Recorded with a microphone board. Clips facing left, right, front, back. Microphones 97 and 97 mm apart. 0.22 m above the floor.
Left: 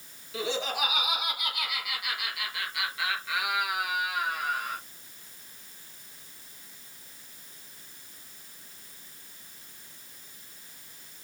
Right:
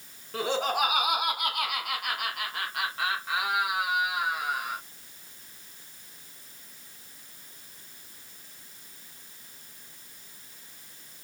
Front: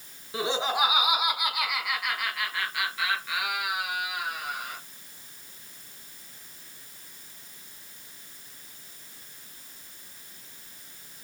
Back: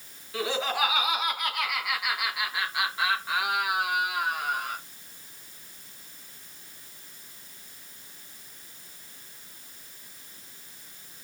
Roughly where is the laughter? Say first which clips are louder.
Right 4 dB, front 1 dB; ahead right.